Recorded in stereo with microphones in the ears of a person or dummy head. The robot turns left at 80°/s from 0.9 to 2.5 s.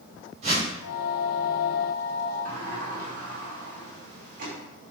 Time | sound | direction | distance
0.4 | a whoosh | 50° right (ahead or behind) | 4.5 m
2.5 | a sliding door | 50° right (ahead or behind) | 4 m